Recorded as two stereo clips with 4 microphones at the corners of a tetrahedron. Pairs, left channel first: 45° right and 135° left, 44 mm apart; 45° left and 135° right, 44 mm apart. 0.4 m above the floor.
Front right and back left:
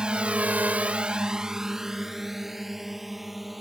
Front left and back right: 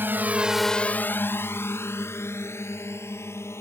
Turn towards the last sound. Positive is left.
turn(degrees=50)